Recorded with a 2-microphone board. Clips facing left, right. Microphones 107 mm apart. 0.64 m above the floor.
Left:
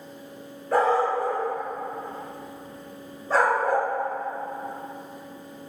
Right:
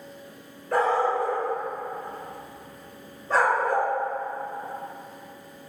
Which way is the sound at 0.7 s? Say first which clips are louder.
Left 1 dB; 5° left (ahead or behind).